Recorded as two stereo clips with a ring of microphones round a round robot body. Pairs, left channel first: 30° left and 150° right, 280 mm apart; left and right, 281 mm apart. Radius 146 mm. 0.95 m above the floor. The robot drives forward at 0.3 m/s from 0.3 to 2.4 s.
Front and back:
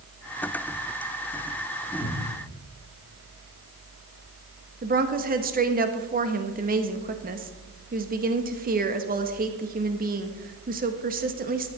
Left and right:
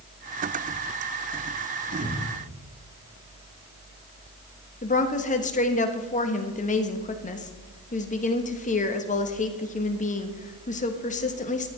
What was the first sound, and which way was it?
A cupboard door, 10° right.